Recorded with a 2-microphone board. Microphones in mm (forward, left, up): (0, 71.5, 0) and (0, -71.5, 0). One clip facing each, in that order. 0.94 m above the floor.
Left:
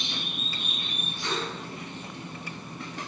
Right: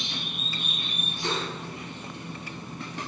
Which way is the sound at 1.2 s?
30° right (ahead or behind).